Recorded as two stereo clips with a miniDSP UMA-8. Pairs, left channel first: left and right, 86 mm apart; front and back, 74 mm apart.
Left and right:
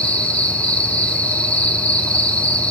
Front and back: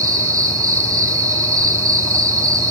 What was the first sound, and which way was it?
An insect, 160° left.